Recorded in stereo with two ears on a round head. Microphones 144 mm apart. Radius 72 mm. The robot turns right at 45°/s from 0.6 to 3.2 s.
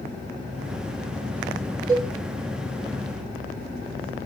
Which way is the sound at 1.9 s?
30° right (ahead or behind).